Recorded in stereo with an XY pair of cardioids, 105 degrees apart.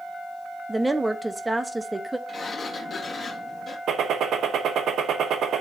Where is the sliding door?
40° left, 1.8 m.